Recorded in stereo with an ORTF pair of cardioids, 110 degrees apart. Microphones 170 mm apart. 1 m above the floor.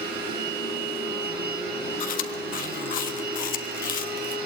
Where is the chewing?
55° left, 1.7 m.